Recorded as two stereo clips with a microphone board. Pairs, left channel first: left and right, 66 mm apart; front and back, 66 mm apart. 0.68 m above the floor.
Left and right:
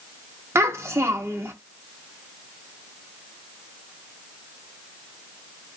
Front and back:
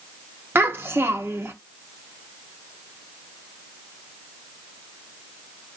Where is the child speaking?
130° right, 0.9 m.